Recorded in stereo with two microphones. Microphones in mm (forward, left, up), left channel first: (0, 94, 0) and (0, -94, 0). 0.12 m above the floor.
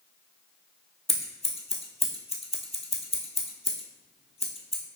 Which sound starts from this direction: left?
Scissors, at 1.1 s.